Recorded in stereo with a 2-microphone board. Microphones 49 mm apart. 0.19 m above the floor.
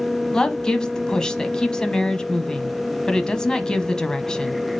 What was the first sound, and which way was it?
A woman speaking, 15° left (ahead or behind).